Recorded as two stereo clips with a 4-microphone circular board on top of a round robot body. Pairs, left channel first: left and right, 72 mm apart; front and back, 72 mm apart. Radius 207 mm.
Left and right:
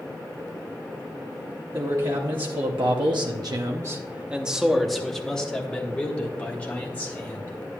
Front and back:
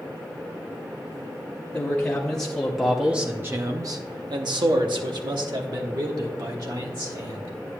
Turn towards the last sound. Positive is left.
turn(degrees=155)